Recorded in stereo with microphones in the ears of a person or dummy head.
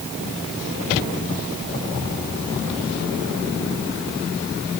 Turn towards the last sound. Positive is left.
No sound to turn to.